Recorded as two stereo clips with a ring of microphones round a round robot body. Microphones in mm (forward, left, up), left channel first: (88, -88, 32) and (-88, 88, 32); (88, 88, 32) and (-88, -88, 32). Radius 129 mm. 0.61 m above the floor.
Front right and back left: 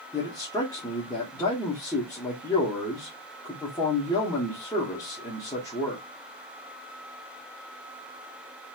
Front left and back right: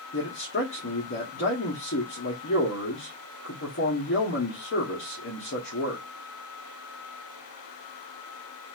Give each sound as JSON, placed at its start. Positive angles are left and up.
{"t": 0.1, "sound": "a man speaking", "azimuth_deg": 25, "distance_m": 1.2}